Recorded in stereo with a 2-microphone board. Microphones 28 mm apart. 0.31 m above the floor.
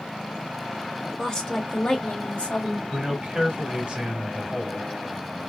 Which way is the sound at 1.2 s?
20° left (ahead or behind).